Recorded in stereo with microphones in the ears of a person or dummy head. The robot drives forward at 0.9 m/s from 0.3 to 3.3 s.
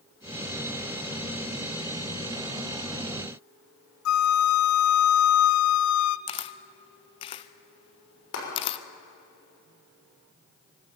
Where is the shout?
I don't hear a shout.